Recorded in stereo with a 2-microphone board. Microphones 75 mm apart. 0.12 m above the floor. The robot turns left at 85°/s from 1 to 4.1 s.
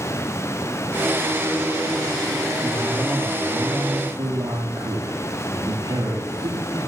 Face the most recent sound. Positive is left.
turn(degrees=-80)